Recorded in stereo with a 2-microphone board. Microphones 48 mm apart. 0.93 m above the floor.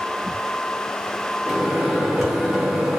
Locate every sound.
1.5 s a microwave: 5° right (ahead or behind), 1.1 m